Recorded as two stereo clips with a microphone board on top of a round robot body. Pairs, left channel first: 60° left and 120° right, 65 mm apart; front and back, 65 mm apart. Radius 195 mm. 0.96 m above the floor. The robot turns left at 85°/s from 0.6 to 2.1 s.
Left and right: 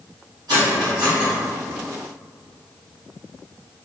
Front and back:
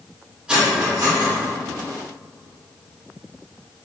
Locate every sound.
0.5 s cutlery clinking: 105° right, 1.2 m; by 1.3 s 160° right, 1.2 m